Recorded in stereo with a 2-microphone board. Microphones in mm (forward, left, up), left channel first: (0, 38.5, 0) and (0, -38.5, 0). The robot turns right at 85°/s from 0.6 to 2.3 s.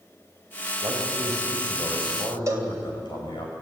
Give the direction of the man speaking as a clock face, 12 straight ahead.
2 o'clock.